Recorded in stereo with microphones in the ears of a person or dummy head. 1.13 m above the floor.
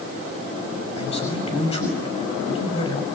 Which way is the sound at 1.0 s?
30° left (ahead or behind).